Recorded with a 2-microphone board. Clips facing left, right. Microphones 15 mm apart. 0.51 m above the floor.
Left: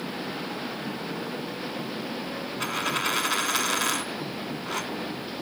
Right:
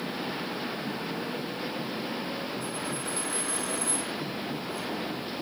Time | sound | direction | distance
2.6 | a dropped coin | 75° left (ahead or behind) | 1.0 m